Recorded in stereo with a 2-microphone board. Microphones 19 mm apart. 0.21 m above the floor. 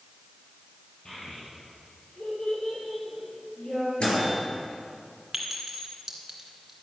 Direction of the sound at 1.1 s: 40° left (ahead or behind).